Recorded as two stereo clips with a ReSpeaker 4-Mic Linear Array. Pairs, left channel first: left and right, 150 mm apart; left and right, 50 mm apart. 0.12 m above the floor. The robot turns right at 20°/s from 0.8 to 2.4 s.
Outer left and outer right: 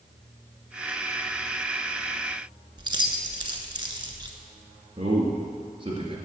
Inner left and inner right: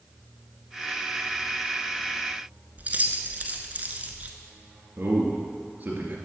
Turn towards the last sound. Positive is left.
turn(degrees=-35)  # may be behind; listen again after turning